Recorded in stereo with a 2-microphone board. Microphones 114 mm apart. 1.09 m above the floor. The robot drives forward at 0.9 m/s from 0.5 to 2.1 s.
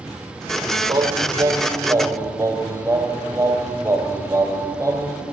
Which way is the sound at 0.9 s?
40° right (ahead or behind).